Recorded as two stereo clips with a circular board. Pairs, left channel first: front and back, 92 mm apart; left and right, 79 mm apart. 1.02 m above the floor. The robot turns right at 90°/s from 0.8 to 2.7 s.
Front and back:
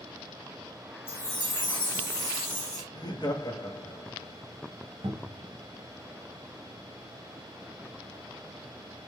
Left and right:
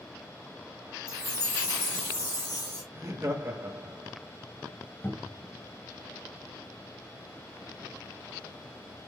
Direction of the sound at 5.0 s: 155° left.